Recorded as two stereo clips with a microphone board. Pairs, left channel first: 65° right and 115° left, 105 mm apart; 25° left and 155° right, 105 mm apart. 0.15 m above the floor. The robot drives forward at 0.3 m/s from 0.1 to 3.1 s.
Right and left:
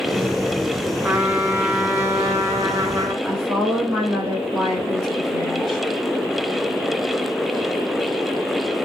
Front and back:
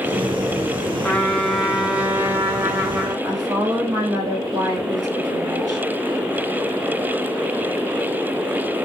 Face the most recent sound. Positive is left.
turn(degrees=-155)